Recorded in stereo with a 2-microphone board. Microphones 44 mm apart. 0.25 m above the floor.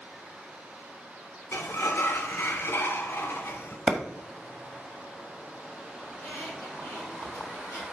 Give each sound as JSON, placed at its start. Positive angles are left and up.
{"t": 1.5, "sound": "a sliding door", "side_deg": 65, "distance_m": 0.9}
{"t": 3.9, "sound": "a clap", "side_deg": 0, "distance_m": 1.2}
{"t": 6.1, "sound": "a squeak", "side_deg": 70, "distance_m": 5.5}